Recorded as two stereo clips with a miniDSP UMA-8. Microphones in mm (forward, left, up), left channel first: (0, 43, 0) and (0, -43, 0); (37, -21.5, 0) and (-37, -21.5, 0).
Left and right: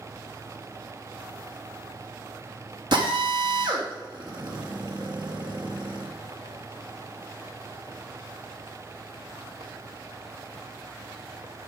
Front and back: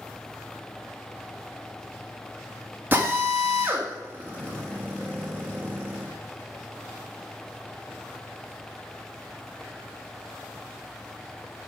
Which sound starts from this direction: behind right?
A drill, at 2.9 s.